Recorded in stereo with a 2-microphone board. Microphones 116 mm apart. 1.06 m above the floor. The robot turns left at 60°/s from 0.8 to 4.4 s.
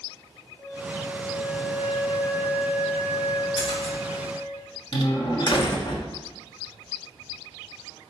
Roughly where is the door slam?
Left.